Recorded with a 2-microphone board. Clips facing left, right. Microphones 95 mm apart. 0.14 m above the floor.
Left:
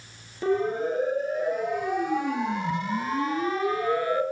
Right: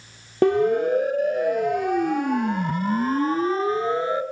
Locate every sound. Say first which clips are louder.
0.4 s a siren: right 6 dB; 65° right (ahead or behind), 4.5 m; by 4.2 s 20° right (ahead or behind), 3 m